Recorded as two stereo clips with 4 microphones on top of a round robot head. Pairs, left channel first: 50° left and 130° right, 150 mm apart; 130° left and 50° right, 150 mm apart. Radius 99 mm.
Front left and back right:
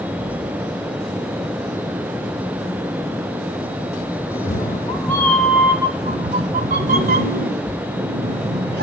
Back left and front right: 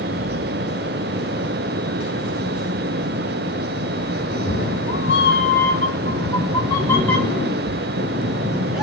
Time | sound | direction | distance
4.3 | a cat meowing | 95° left | 1.0 m